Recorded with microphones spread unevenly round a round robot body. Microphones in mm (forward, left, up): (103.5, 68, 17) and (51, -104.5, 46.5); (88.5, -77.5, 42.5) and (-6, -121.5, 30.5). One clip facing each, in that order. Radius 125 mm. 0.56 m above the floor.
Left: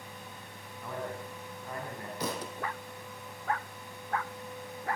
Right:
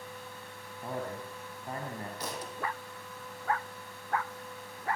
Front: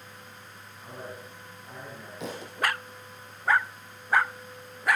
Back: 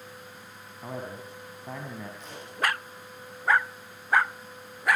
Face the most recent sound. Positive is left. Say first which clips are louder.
# left 4 dB, front 6 dB
turn(degrees=80)